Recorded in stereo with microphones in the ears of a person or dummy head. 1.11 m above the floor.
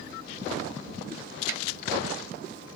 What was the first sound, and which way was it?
A snare drum, 55° right (ahead or behind).